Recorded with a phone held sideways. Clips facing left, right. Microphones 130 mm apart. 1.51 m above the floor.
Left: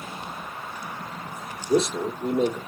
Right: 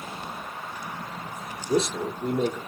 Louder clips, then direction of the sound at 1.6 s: Left 2 dB; 5° left (ahead or behind).